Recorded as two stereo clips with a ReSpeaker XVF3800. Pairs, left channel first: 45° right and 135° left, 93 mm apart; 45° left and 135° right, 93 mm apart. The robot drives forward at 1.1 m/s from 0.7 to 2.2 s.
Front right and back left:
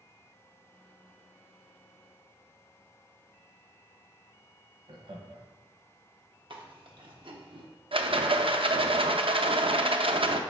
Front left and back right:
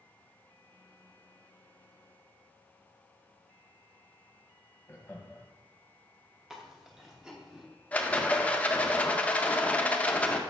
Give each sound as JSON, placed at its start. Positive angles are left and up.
{"t": 4.9, "sound": "laughter", "azimuth_deg": 110, "distance_m": 1.2}
{"t": 6.5, "sound": "chewing", "azimuth_deg": 140, "distance_m": 1.0}
{"t": 7.9, "sound": "a rattle", "azimuth_deg": 120, "distance_m": 0.6}